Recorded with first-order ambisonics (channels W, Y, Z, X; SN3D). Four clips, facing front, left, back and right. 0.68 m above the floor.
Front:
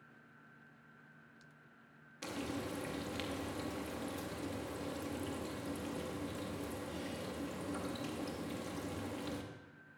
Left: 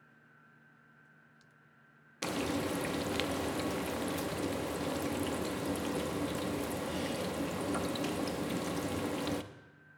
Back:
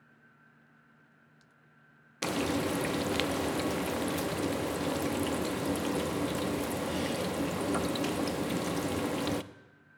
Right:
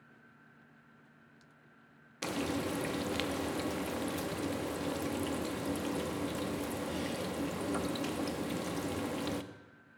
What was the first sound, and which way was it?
Frying, 175° left.